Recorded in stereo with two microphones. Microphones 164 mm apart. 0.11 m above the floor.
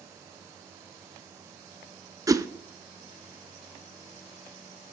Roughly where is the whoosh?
Right.